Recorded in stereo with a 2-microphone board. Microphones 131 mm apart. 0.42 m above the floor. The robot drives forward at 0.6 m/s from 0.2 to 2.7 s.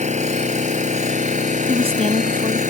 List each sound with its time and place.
0.0 s an engine running: 65° right (ahead or behind); by 2.7 s 75° right (ahead or behind)
1.7 s a woman speaking: 50° right (ahead or behind); by 2.6 s 45° right (ahead or behind)